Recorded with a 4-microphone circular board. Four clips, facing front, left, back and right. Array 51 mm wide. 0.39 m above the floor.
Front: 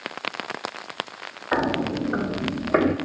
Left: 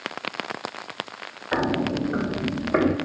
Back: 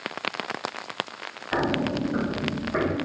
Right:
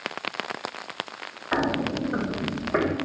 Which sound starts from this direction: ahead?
Footsteps, at 1.5 s.